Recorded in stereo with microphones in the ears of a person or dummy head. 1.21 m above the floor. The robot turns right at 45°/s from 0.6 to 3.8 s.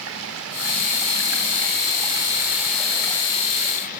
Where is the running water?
100° right, 4 m; by 4.0 s 45° left, 4 m.